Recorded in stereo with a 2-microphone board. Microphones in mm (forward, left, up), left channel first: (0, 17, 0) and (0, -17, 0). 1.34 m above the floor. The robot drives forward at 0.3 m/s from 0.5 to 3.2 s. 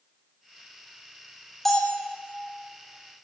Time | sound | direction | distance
1.6 | a bell | 10° left (ahead or behind) | 3 m